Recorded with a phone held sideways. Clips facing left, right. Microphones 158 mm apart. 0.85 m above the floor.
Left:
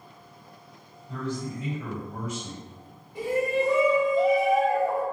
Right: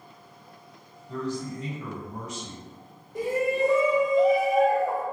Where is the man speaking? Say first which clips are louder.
Right 1 dB; 35° right (ahead or behind), 1.6 m.